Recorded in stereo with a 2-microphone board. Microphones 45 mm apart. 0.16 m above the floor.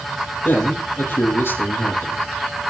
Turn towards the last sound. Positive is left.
turn(degrees=60)  # may be behind; listen again after turning